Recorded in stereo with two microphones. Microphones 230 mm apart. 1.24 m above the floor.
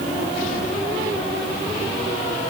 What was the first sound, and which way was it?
Only background noise.